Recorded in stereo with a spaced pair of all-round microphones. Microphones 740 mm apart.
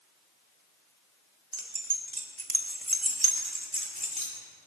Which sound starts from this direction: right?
Keys jangling, at 1.5 s.